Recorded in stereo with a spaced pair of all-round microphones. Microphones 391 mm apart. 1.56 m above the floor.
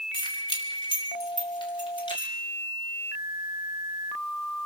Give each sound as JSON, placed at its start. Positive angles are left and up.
{"t": 0.1, "sound": "keys jangling", "side_deg": 10, "distance_m": 3.5}